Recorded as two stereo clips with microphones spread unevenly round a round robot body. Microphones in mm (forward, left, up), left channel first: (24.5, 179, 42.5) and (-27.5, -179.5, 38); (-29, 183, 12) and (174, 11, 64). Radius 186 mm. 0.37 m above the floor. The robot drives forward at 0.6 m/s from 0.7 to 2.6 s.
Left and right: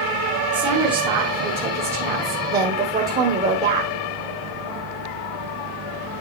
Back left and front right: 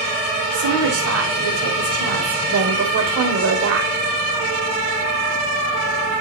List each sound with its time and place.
0.5 s a woman speaking: 25° right, 2.5 m; by 3.9 s 45° right, 1.7 m